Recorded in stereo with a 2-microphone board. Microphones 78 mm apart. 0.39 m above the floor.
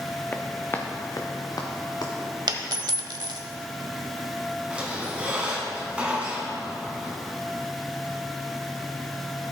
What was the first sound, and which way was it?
Running footsteps, 25° left (ahead or behind).